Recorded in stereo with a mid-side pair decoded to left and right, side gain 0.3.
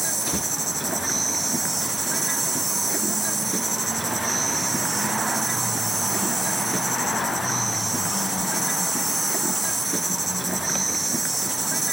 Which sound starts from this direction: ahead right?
An insect, at 0.0 s.